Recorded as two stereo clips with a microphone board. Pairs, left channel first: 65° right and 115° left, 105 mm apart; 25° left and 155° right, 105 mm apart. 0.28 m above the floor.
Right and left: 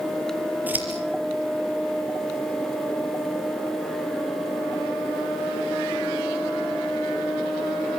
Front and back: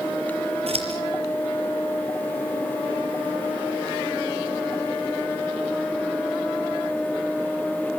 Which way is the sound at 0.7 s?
175° right.